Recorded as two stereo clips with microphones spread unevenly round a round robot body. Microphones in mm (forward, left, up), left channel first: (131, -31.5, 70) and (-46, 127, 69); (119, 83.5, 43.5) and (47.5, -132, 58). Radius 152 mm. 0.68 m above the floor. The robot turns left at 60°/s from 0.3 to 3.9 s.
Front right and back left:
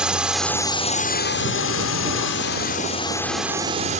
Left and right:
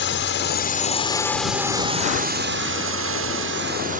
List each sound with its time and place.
0.0 s a drone: 50° left; by 4.0 s 165° right